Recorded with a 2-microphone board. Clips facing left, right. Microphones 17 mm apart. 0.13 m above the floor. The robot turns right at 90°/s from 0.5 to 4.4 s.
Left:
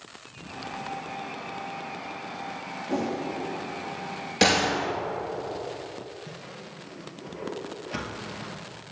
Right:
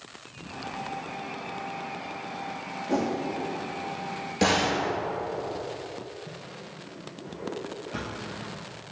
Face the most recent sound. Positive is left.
turn(degrees=40)  # may be behind; listen again after turning